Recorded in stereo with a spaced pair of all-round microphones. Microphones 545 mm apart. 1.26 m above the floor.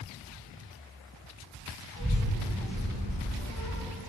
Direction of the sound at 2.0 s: 25° right (ahead or behind).